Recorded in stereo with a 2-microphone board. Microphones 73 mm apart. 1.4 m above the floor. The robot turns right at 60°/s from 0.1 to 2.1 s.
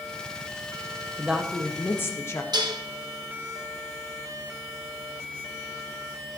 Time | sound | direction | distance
1.2 | a woman speaking | 20° right | 1.5 m
2.5 | dishes clattering | 75° right (ahead or behind) | 1.4 m